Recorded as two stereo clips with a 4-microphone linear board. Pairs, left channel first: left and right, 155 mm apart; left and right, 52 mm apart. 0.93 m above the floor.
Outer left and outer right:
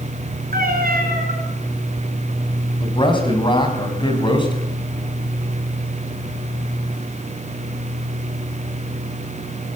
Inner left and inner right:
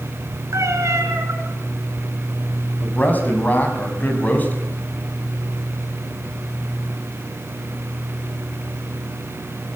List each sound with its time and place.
0.5 s a cat meowing: 65° right (ahead or behind), 7.5 m
2.8 s a man speaking: 30° left (ahead or behind), 6 m